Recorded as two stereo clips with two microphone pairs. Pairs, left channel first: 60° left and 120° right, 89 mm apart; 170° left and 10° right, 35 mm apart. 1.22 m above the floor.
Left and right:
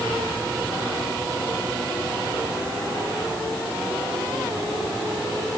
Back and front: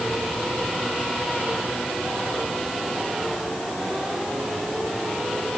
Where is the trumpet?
I don't hear a trumpet.